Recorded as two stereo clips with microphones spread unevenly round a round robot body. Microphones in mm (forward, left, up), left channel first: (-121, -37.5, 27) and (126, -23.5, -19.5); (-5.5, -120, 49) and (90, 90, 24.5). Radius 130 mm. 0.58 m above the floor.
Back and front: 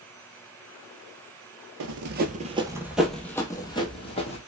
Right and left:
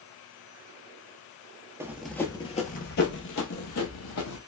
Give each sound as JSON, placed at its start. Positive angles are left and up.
{"t": 1.8, "sound": "running footsteps", "azimuth_deg": -15, "distance_m": 0.7}